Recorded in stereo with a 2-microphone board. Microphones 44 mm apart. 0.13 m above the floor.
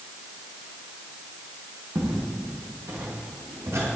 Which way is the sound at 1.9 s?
85° right.